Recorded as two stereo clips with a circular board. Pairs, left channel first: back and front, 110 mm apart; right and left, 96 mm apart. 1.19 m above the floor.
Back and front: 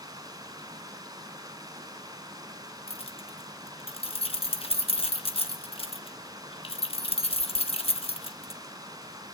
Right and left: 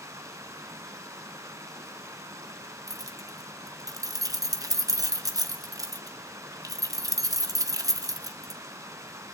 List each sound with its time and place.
0.0 s running water: 45° left, 1.5 m
2.9 s keys jangling: 145° left, 1.0 m